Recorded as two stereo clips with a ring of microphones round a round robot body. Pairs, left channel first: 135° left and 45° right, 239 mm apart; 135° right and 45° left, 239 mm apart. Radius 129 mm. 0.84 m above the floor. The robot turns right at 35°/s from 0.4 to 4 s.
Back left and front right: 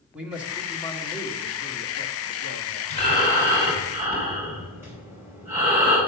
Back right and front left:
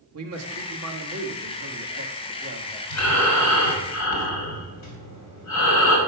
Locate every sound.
0.1 s a man speaking: 40° left, 1.5 m; by 2.8 s 125° left, 1.5 m
2.9 s breathing: 165° right, 3 m; by 6.0 s 125° right, 3 m